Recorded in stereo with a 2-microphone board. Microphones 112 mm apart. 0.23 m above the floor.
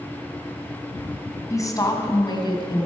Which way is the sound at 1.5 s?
30° left (ahead or behind).